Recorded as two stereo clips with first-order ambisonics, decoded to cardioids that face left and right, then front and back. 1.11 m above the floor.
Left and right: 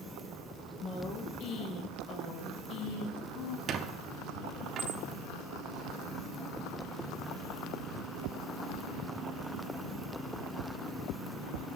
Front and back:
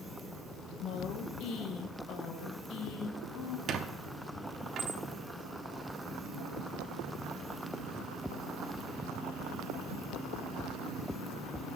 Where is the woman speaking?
40° left, 1.2 m.